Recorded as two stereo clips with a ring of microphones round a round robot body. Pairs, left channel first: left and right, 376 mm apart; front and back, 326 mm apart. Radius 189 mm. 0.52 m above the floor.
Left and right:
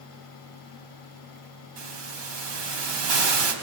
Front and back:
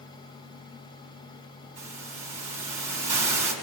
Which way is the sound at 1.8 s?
105° right.